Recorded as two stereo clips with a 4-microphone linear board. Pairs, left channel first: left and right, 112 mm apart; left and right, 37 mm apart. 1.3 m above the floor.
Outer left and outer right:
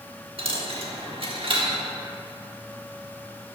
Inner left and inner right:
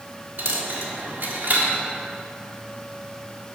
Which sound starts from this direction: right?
A dropped coin, at 0.4 s.